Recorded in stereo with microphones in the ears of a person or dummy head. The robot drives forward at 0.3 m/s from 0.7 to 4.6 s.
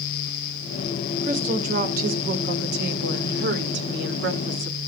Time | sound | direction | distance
1.2 | a woman speaking | 45° right (ahead or behind) | 2.5 m